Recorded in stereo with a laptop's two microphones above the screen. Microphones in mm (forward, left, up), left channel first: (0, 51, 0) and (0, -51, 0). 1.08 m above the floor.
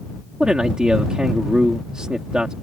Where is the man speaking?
10° right (ahead or behind).